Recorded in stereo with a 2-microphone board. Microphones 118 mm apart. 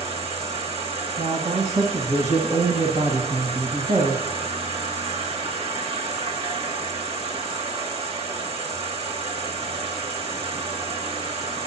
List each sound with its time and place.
0.0 s an insect: 55° right (ahead or behind), 1.3 m
1.2 s a man speaking: 75° right (ahead or behind), 1.8 m